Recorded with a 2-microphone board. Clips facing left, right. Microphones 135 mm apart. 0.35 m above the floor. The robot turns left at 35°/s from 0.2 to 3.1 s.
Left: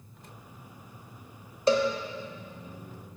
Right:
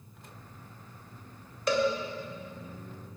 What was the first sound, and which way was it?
A cowbell, 30° left (ahead or behind).